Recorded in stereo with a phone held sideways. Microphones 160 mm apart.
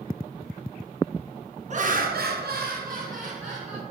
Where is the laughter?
50° right (ahead or behind), 0.5 m.